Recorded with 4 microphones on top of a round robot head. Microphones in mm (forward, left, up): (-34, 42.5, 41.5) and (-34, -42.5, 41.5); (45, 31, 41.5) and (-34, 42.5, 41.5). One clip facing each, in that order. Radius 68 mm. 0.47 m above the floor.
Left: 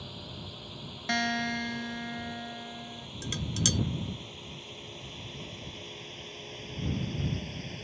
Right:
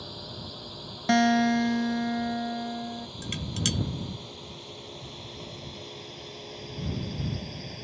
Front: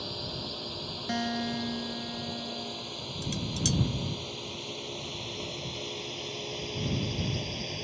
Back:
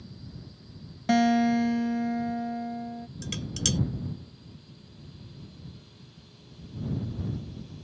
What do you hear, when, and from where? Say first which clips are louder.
0.0 s a drone: right 3 dB, front 8 dB; 15° right; by 7.8 s 10° right
1.1 s a guitar: right 9 dB, back 10 dB; 140° right
3.2 s dishes clattering: left 1 dB, front 2 dB; 155° left